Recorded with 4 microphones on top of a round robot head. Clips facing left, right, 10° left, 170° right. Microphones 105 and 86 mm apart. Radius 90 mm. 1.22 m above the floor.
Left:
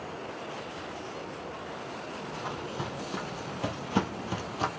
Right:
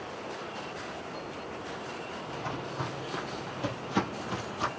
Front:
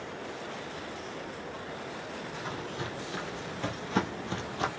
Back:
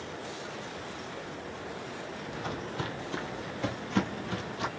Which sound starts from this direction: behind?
Footsteps, at 2.3 s.